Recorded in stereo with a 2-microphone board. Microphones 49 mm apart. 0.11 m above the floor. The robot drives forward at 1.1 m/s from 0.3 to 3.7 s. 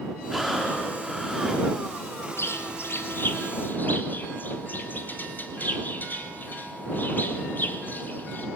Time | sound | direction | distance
0.3 | breathing | 5° left (ahead or behind) | 6 m
2.4 | a bird | 55° left (ahead or behind) | 1.7 m